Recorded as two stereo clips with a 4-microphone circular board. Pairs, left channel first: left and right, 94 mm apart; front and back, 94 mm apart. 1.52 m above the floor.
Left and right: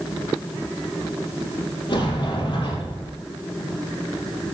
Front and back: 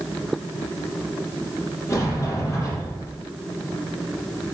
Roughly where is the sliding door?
Ahead left.